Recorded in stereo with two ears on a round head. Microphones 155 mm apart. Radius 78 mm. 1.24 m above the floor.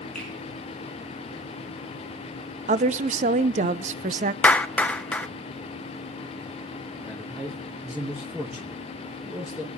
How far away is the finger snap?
About 9.5 m.